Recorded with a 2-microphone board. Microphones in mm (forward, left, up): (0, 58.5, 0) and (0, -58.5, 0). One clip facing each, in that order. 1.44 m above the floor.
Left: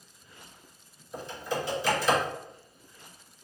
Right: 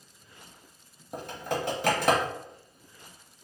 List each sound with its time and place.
1.1 s typing on a keyboard: 60° right (ahead or behind), 1.0 m